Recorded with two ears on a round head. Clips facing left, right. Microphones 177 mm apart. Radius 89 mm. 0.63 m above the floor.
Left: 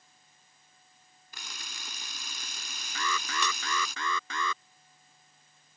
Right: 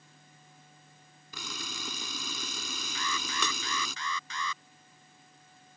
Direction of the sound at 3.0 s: 50° left (ahead or behind).